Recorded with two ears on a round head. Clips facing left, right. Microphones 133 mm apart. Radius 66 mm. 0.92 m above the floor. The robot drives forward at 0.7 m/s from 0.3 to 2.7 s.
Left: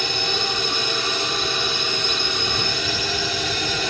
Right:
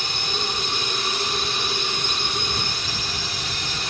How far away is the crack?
No crack in this recording.